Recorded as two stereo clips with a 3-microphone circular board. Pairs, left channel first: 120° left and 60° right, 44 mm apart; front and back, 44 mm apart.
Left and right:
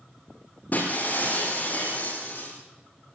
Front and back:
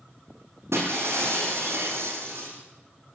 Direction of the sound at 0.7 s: 165° left.